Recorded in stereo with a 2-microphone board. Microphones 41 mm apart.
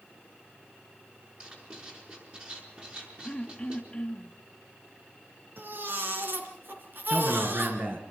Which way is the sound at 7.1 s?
55° right (ahead or behind).